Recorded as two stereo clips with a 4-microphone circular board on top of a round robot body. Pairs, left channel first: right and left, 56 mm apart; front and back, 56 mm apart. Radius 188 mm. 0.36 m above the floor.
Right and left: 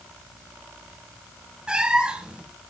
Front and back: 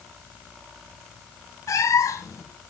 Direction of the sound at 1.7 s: 15° left.